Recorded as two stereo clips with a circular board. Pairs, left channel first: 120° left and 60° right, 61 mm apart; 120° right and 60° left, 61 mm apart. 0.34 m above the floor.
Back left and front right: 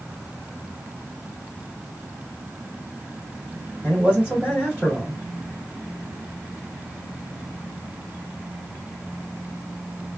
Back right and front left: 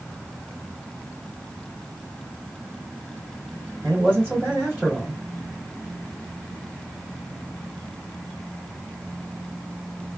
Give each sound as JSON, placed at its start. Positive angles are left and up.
{"t": 3.8, "sound": "a man speaking", "azimuth_deg": 5, "distance_m": 2.0}